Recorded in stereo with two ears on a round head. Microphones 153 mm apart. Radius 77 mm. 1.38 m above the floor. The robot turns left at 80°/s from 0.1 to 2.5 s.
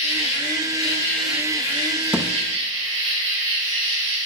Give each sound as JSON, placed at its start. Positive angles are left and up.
{"t": 0.0, "sound": "an insect", "azimuth_deg": 95, "distance_m": 2.5}
{"t": 2.1, "sound": "a thud", "side_deg": -5, "distance_m": 0.6}